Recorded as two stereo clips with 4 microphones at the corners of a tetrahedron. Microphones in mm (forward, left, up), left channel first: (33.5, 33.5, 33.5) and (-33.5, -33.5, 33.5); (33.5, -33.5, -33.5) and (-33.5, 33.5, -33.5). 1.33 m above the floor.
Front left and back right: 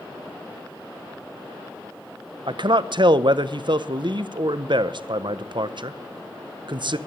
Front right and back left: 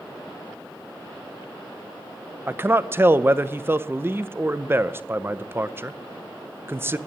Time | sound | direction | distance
2.5 | a man speaking | 160° right | 0.7 m